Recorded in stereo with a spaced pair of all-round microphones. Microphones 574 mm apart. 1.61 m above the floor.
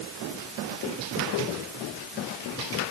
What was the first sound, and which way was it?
Only background noise.